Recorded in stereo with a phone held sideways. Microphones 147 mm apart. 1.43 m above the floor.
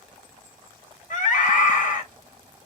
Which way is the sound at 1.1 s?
60° left (ahead or behind).